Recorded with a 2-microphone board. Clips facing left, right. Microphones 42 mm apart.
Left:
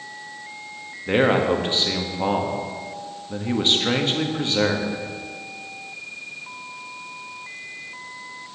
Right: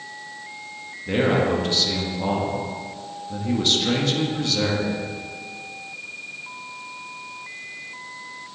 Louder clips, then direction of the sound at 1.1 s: Left 2 dB; 30° left (ahead or behind).